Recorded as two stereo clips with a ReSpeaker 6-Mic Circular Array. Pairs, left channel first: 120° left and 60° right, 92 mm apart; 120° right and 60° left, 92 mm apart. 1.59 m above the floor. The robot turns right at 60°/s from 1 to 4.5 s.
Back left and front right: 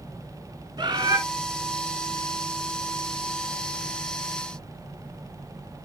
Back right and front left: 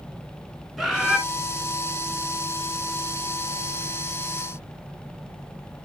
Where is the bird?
25° right, 1.6 m; by 1.2 s 15° right, 1.6 m.